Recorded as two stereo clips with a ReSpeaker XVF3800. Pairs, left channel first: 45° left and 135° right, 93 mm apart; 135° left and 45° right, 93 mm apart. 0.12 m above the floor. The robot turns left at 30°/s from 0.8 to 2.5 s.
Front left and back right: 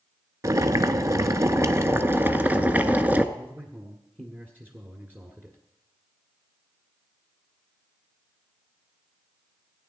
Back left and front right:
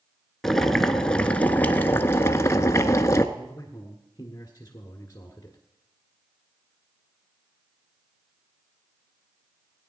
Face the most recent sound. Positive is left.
turn(degrees=170)